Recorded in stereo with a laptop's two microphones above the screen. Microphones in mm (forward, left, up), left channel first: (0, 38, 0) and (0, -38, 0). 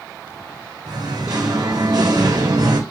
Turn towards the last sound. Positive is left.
turn(degrees=-55)  # may be behind; listen again after turning